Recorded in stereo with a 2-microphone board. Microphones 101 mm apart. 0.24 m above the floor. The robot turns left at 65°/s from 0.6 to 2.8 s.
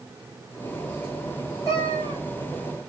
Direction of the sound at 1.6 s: 145° left.